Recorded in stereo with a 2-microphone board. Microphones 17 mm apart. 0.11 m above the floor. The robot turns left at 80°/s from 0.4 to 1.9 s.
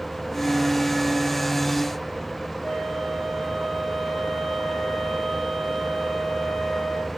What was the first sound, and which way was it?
A flute, 50° left (ahead or behind).